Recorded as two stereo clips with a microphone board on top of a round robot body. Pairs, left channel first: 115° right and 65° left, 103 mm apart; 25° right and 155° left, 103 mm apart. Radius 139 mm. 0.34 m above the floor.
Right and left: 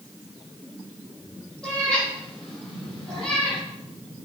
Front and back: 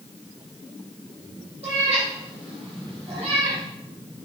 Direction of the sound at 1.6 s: 165° left.